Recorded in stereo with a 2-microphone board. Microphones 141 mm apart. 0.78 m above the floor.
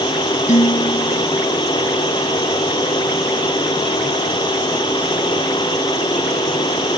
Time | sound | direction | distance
0.5 | dishes clattering | 60° left (ahead or behind) | ?